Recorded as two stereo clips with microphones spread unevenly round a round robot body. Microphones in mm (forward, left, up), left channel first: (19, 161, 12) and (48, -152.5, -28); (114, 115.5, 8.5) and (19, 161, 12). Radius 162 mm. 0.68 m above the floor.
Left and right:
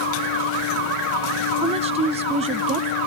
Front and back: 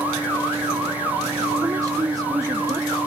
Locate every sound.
1.6 s a woman speaking: 145° right